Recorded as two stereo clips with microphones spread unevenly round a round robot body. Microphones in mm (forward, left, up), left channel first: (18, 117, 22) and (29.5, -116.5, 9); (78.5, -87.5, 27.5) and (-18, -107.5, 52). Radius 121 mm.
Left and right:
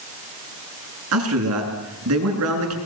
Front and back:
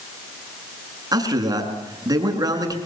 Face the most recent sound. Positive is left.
turn(degrees=-120)